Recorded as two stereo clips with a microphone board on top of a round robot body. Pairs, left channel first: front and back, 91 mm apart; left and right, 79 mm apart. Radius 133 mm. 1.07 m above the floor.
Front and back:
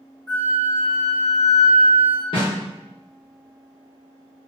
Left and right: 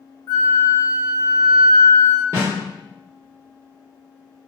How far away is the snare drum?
About 1.0 m.